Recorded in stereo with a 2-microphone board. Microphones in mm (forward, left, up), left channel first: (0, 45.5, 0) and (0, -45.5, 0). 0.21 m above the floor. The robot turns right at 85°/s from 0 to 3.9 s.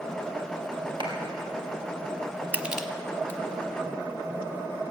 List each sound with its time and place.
1.0 s a clap: 60° right (ahead or behind), 3.5 m; by 1.2 s 45° right (ahead or behind), 3.5 m
2.5 s crushing: 15° right (ahead or behind), 0.9 m; by 3.4 s 25° left (ahead or behind), 0.9 m